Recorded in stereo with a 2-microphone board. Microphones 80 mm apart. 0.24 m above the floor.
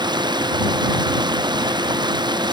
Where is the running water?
65° right (ahead or behind).